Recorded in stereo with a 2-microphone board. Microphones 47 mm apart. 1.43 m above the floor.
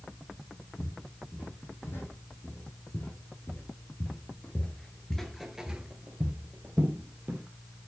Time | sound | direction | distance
0.8 | footsteps | 55° left (ahead or behind) | 4.5 m